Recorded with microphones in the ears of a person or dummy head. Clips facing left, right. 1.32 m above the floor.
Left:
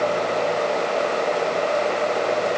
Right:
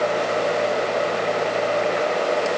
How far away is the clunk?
I don't hear a clunk.